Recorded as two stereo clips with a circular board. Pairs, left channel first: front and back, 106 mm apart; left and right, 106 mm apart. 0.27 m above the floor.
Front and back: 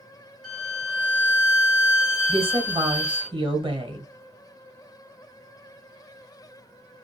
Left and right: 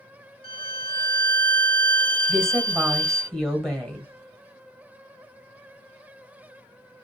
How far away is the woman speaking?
About 1.3 m.